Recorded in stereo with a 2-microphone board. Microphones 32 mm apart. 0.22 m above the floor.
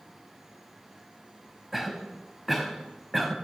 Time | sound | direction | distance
1.7 | a cough | 5° right (ahead or behind) | 1.0 m